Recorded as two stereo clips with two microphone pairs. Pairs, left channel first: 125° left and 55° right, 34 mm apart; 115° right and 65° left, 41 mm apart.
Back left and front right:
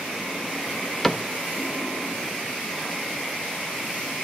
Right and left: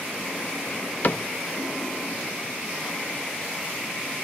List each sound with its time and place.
1.0 s a cupboard door: 145° right, 0.8 m